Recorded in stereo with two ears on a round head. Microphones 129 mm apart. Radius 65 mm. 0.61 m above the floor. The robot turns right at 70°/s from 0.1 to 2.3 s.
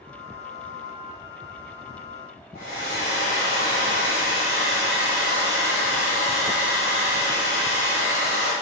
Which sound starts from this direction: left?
A hair dryer, at 2.5 s.